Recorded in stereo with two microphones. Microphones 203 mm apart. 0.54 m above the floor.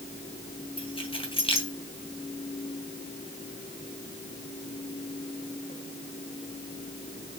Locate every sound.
0.8 s keys jangling: 25° left (ahead or behind), 2 m